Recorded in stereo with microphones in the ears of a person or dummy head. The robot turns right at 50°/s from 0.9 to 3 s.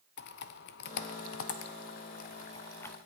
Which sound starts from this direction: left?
Typing on a keyboard, at 0.2 s.